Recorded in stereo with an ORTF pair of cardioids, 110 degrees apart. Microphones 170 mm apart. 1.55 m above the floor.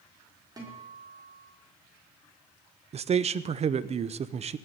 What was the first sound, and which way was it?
A guitar, 25° right.